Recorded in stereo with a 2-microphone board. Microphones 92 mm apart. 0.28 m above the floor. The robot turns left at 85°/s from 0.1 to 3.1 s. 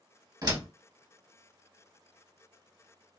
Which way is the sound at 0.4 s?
45° right (ahead or behind).